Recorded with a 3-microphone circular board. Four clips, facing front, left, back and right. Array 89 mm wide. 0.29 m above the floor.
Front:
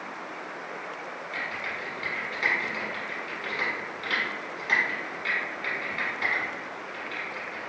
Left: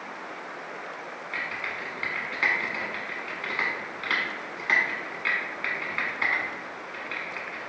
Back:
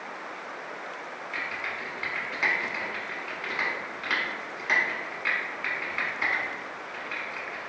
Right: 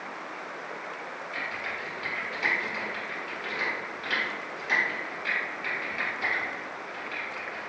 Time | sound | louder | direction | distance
1.3 | typing on a keyboard | left 2 dB, back 1 dB | 110° left | 1.0 m